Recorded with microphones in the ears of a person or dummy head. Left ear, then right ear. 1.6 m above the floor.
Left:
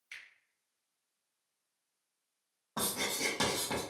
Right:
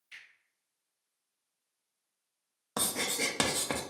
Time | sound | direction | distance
0.1 | a finger snap | 60° left (ahead or behind) | 1.2 m
2.8 | writing | 45° right (ahead or behind) | 0.5 m